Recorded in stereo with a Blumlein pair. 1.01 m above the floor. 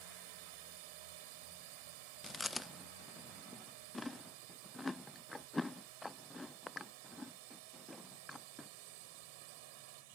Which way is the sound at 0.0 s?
45° right.